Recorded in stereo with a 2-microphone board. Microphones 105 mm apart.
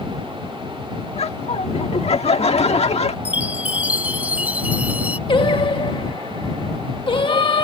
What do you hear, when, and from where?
1.1 s laughter: 80° left
3.2 s a chime: 15° right (ahead or behind)
5.3 s singing: 55° left (ahead or behind)